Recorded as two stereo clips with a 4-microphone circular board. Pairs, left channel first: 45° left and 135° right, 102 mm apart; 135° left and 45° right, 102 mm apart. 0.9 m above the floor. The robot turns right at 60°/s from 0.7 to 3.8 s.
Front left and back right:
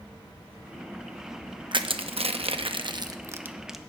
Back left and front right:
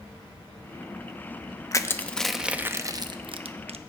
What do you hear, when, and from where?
1.7 s crushing: 170° right, 0.7 m; by 3.8 s 45° right, 0.7 m